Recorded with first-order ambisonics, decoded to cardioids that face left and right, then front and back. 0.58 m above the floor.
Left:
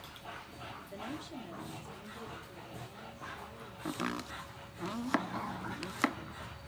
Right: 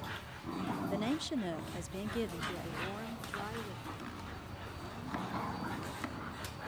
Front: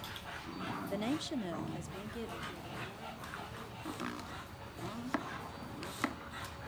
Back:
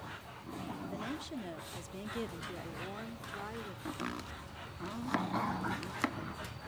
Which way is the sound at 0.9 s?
45° right.